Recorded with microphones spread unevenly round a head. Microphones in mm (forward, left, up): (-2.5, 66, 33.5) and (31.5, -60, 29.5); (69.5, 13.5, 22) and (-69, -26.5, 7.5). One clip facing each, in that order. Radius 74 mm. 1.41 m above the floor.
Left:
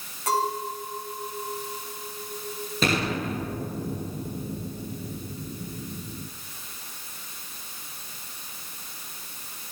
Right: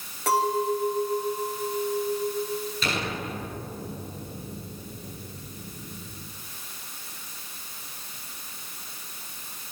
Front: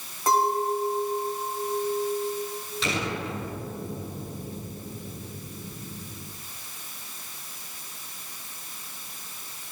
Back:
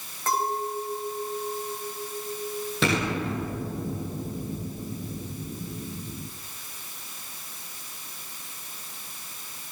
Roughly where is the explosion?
Behind left.